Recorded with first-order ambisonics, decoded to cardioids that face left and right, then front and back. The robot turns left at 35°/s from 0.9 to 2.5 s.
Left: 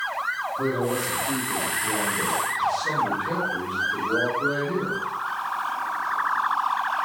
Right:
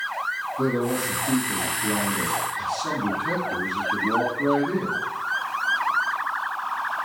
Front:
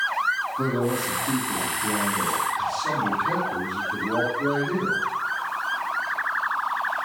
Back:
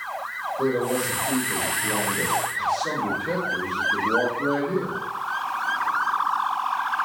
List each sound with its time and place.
0.6 s a man speaking: 30° right, 2 m; by 5.0 s 85° right, 2 m